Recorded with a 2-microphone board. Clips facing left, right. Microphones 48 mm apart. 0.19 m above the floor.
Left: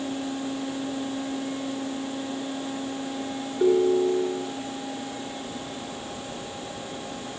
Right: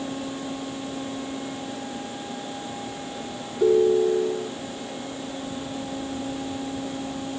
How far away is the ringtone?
About 9.5 m.